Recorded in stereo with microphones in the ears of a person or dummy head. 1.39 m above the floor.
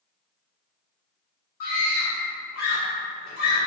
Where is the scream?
45° left (ahead or behind), 1.2 m.